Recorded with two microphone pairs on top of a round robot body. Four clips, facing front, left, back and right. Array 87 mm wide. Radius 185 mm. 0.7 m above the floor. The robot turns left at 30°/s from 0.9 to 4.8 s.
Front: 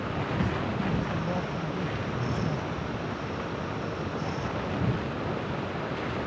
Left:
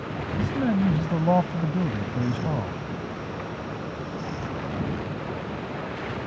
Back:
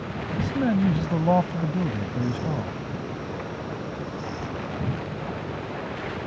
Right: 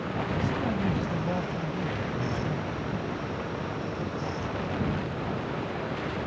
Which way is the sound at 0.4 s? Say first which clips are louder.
Left 8 dB, back 11 dB; 155° left.